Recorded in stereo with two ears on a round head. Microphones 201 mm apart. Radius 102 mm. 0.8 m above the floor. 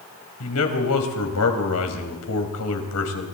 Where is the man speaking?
80° left, 4 m.